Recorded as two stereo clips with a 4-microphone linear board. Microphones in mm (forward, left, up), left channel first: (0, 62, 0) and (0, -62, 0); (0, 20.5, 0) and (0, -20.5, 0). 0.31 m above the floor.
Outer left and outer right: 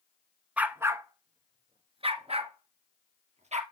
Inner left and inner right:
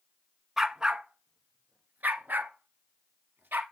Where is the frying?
No frying in this recording.